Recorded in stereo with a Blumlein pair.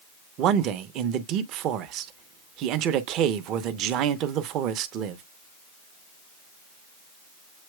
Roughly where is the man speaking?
Ahead right.